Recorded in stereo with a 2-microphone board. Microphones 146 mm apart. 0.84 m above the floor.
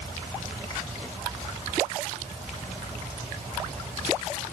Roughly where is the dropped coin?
I don't hear a dropped coin.